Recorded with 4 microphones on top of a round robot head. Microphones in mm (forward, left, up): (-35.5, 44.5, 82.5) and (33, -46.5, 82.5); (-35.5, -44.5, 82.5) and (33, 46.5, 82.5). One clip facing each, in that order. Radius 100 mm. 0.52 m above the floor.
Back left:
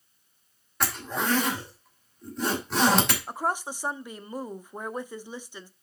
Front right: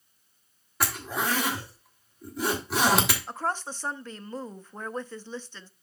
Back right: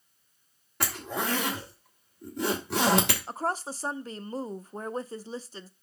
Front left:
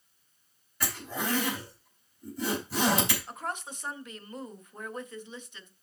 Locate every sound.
0.8 s a zipper: 140° right, 3 m
3.3 s a woman speaking: 160° right, 0.8 m